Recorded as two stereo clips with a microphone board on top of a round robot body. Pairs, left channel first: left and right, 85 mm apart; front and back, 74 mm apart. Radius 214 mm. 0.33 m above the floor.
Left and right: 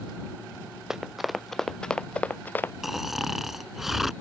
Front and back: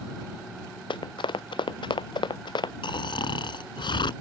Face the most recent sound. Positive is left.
turn(degrees=-5)